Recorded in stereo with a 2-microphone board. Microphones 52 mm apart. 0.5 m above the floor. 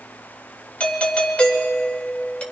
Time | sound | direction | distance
0.8 | a doorbell | 25° left (ahead or behind) | 3 m